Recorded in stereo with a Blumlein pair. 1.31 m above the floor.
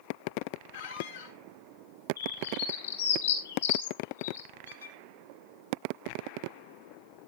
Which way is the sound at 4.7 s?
70° left.